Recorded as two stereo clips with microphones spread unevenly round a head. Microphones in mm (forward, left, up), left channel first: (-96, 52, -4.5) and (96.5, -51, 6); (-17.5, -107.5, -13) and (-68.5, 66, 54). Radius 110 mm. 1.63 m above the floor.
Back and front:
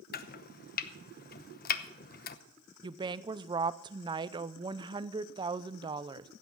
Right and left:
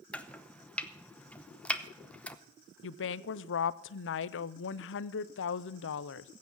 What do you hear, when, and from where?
0.1 s chopping: 175° right, 0.8 m
2.8 s a woman speaking: 95° right, 0.5 m